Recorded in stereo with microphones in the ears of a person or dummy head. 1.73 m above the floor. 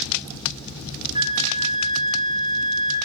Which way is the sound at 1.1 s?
30° right (ahead or behind).